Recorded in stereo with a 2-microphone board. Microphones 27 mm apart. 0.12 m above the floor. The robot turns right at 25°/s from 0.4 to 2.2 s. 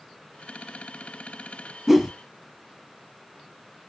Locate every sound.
1.9 s a whoosh: 5° right (ahead or behind), 0.8 m; by 2.1 s 15° right (ahead or behind), 0.8 m